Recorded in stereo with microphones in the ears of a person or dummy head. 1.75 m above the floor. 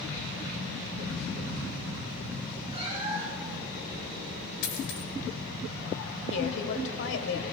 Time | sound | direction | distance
2.7 | a cat meowing | 35° right (ahead or behind) | 4 m
4.6 | a dropped coin | 65° left (ahead or behind) | 2 m
6.3 | a woman speaking | 60° left (ahead or behind) | 1.2 m